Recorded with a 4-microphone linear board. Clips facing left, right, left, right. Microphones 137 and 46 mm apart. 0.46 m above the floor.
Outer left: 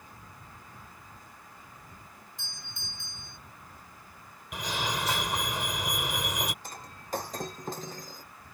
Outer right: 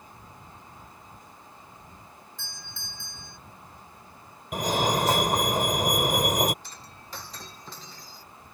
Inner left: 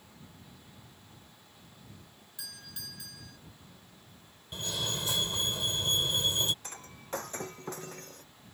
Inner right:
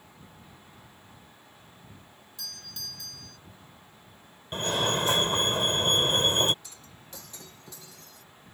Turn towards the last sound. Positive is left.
turn(degrees=45)  # may be behind; listen again after turning